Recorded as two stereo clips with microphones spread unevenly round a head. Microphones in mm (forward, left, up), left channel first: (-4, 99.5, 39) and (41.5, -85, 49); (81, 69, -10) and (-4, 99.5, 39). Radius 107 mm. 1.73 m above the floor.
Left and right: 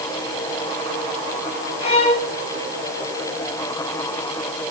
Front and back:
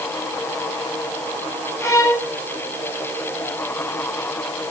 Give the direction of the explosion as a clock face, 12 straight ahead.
I don't hear an explosion.